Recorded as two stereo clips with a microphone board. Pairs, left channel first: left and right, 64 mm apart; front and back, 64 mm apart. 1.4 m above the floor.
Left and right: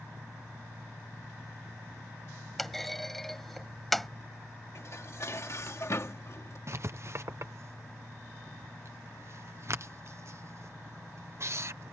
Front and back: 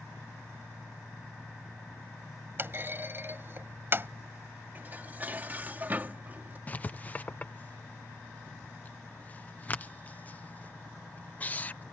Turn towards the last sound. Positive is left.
turn(degrees=-60)